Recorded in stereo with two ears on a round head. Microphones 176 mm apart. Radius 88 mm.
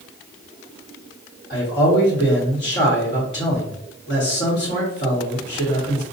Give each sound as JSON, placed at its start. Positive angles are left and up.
{"t": 1.5, "sound": "a man speaking", "side_deg": 60, "distance_m": 1.9}